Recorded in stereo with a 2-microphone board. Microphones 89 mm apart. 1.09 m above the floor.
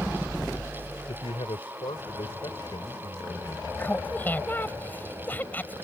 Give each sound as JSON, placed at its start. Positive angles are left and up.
{"t": 1.1, "sound": "a man speaking", "side_deg": 85}
{"t": 3.8, "sound": "laughter", "side_deg": 20}